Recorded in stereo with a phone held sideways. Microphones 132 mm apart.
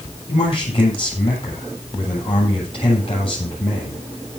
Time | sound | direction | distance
0.3 | a man speaking | 45° left (ahead or behind) | 8 m